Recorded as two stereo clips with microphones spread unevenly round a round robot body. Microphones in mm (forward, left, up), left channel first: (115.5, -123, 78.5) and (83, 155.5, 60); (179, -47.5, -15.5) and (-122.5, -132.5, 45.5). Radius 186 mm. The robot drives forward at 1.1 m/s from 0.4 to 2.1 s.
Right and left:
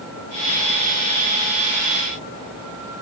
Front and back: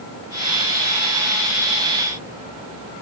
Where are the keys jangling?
I don't hear keys jangling.